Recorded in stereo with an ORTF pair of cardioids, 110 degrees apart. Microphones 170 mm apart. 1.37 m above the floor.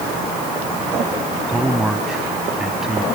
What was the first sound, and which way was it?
A man speaking, 5° right.